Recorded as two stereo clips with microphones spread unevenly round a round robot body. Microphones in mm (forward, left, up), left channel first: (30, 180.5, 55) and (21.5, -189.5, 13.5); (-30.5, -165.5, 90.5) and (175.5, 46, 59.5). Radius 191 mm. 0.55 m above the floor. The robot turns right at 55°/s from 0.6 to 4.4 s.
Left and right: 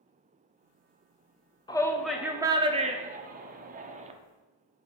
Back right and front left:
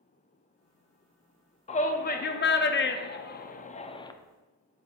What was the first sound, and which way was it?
A shout, 170° left.